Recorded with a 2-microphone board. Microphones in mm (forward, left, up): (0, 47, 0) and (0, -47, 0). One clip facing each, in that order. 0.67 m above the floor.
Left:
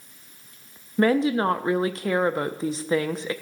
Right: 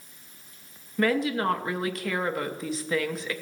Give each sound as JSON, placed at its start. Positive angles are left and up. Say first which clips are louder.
{"t": 1.0, "sound": "a woman speaking", "louder": "left 4 dB", "side_deg": 25, "distance_m": 0.5}